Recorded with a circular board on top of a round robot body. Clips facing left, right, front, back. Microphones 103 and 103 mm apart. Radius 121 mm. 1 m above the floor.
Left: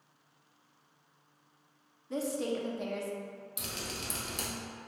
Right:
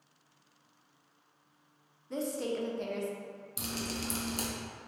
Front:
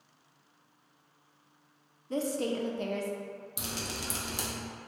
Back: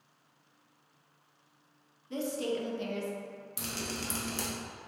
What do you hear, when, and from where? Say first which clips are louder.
2.1 s a woman speaking: left 1 dB, front 2 dB; 5° left, 0.7 m
3.6 s dripping: right 5 dB, back 2 dB; 65° right, 0.8 m